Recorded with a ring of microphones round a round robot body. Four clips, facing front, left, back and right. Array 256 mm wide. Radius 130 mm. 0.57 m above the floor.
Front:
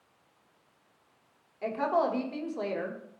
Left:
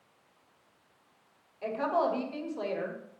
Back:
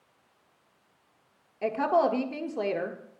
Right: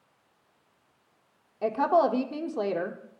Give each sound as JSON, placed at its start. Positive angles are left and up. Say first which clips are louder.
{"t": 1.6, "sound": "a woman speaking", "louder": "right 6 dB, back 3 dB", "azimuth_deg": -115, "distance_m": 1.4}